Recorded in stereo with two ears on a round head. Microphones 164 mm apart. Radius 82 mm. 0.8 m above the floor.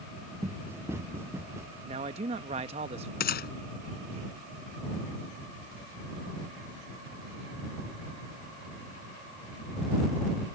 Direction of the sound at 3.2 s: 60° left (ahead or behind).